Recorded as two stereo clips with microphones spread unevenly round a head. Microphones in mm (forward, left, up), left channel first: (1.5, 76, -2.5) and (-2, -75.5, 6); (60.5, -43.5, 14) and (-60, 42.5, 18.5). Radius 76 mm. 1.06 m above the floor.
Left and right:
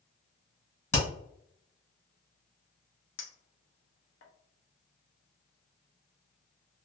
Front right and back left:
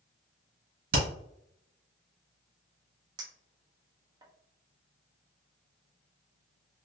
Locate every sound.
0.9 s hammering: 165° left, 1.5 m
3.2 s a clink: 80° left, 0.8 m